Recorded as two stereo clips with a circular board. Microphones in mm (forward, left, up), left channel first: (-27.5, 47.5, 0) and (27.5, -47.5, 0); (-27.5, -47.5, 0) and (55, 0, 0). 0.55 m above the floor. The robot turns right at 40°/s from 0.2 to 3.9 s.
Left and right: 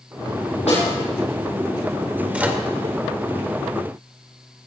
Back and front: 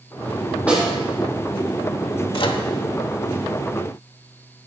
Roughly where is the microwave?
Behind right.